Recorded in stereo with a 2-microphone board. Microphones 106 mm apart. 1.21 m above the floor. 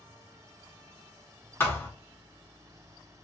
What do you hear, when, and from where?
1.6 s a thud: 25° left (ahead or behind), 0.6 m